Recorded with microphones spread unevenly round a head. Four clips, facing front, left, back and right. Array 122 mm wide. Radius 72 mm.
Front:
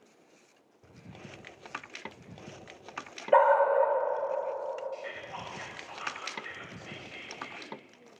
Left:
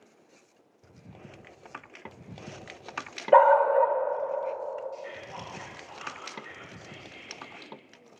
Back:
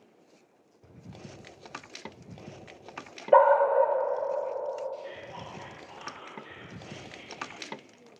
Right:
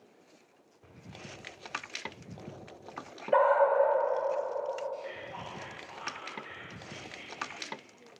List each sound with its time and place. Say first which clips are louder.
3.3 s a dog barking: left 5 dB, back 2 dB; 130° left, 1.6 m
4.9 s whispering: even, even; 10° right, 2.5 m